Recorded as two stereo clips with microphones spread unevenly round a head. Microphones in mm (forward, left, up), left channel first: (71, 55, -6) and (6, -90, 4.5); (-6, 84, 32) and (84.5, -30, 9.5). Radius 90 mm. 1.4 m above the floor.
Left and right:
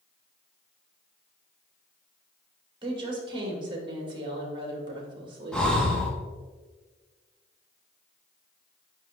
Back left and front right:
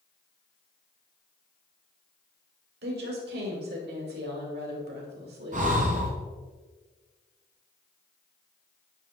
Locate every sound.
2.8 s a woman speaking: 55° right, 2.5 m
5.5 s breathing: 20° right, 1.9 m